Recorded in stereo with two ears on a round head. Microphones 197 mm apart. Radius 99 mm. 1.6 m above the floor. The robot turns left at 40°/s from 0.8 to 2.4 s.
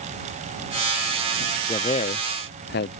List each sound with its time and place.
1.7 s a man speaking: 20° left (ahead or behind); by 3.0 s 45° left (ahead or behind)